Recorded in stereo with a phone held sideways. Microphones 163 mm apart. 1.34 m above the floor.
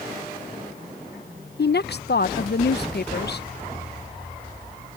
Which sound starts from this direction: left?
A woman speaking, at 1.6 s.